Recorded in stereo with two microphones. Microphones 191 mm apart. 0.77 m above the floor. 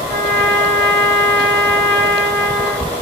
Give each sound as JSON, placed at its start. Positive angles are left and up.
{"t": 0.1, "sound": "a trumpet", "side_deg": -70, "distance_m": 1.6}